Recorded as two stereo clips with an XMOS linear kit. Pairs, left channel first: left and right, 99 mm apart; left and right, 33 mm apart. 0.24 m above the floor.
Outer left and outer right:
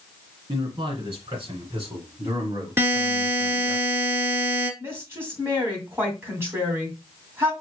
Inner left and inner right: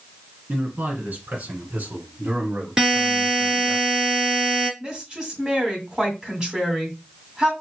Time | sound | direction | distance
0.5 | a man speaking | 45° right (ahead or behind) | 2 m
2.8 | a buzzer | 20° right (ahead or behind) | 1.9 m
4.8 | a woman speaking | 25° right (ahead or behind) | 2 m